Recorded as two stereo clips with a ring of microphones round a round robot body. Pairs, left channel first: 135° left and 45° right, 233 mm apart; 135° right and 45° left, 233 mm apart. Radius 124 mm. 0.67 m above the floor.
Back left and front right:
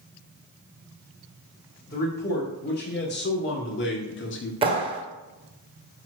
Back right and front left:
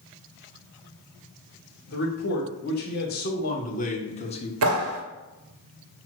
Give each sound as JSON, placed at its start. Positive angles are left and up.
{"t": 1.9, "sound": "a man speaking", "azimuth_deg": -175, "distance_m": 2.5}
{"t": 4.6, "sound": "a clap", "azimuth_deg": 25, "distance_m": 1.6}